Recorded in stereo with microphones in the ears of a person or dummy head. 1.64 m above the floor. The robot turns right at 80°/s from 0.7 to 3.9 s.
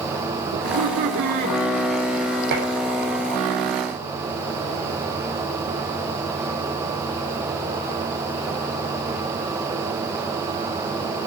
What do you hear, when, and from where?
0.5 s laughter: 100° right, 4.5 m; by 1.6 s 30° right, 4.5 m
2.5 s dishes clattering: 65° right (ahead or behind), 3.5 m; by 2.7 s 75° right (ahead or behind), 3.5 m